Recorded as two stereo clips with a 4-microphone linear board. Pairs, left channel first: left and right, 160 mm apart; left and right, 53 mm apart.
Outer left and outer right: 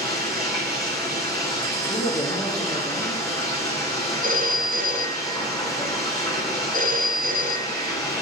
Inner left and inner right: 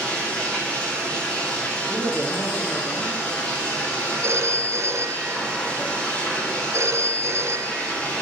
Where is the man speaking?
35° left (ahead or behind), 3 m.